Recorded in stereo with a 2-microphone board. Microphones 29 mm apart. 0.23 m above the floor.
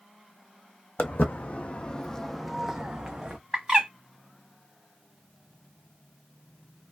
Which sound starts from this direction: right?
A bird, at 3.5 s.